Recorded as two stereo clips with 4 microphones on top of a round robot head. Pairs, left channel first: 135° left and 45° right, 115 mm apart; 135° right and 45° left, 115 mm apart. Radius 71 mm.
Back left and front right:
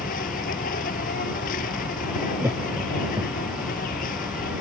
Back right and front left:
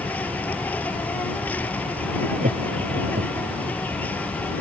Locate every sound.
0.0 s an insect: 145° left
2.4 s laughter: 25° left